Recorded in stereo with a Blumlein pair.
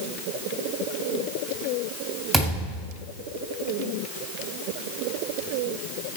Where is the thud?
15° right, 3.5 m.